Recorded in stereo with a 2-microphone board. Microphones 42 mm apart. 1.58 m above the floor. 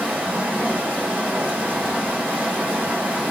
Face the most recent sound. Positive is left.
turn(degrees=-35)  # may be behind; listen again after turning